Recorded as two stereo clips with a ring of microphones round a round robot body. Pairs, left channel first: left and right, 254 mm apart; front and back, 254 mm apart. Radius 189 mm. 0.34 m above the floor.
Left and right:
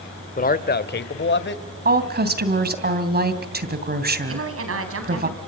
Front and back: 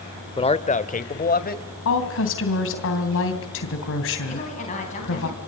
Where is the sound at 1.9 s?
40° right, 3 m.